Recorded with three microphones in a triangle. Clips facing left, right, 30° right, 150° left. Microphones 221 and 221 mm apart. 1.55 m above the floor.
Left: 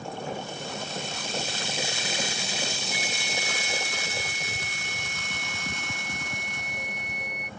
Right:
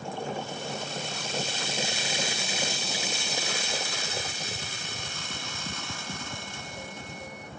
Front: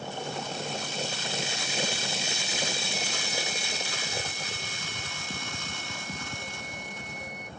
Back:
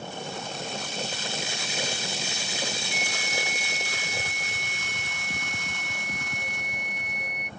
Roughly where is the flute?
Behind.